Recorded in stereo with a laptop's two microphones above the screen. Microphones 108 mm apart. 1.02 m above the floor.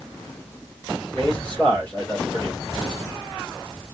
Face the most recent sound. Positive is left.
turn(degrees=15)  # may be behind; listen again after turning